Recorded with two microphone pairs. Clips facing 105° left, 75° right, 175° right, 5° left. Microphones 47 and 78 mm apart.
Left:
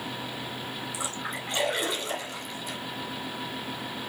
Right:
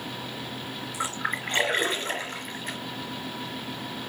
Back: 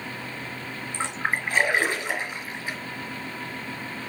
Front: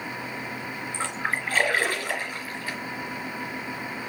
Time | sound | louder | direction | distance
0.9 | a splash | right 8 dB, back 2 dB | 105° right | 3 m